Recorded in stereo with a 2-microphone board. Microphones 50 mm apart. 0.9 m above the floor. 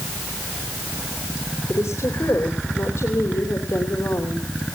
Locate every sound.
1.7 s a woman speaking: 75° left (ahead or behind), 3 m